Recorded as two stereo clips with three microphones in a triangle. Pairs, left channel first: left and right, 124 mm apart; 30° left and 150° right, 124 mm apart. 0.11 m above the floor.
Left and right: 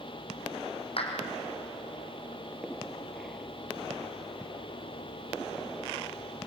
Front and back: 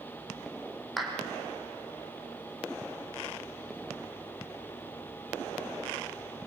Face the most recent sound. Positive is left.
turn(degrees=120)